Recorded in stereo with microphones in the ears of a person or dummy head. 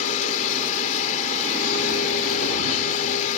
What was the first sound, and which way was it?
A machine running, 45° left (ahead or behind).